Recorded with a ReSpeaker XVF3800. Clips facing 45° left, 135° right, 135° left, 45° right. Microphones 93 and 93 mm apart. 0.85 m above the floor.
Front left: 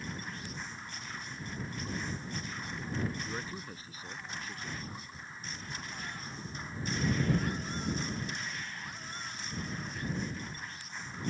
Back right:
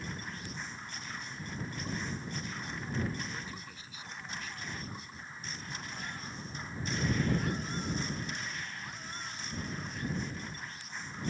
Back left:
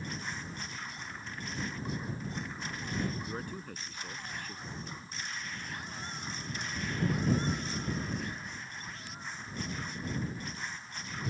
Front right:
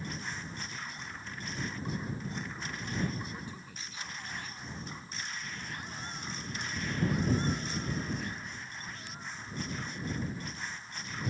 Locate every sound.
3.2 s a man speaking: 100° left